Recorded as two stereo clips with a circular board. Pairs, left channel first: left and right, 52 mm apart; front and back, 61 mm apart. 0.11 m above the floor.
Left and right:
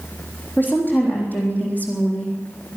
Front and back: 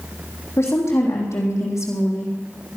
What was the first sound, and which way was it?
A woman speaking, 40° left.